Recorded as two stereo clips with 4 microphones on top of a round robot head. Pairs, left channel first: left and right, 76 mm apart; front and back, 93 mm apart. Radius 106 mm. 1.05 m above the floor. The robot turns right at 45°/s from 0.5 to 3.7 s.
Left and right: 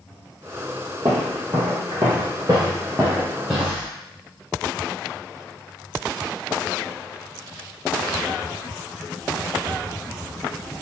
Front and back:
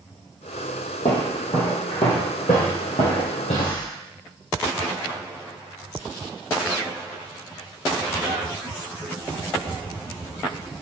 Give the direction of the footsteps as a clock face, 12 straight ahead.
1 o'clock.